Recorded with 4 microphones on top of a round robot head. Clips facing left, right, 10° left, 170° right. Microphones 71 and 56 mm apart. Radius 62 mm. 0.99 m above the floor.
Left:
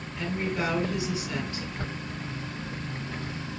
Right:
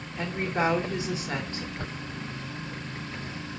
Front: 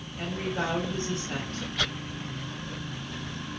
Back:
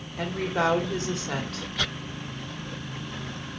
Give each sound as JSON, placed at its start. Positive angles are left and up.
{"t": 0.2, "sound": "a woman speaking", "azimuth_deg": -150, "distance_m": 2.0}